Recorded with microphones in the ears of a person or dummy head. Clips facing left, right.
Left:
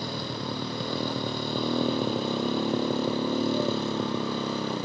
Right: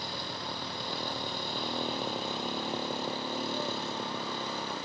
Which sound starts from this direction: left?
A motorcycle, at 0.0 s.